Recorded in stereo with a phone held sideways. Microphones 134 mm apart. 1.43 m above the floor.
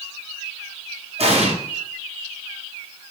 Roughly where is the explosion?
Right.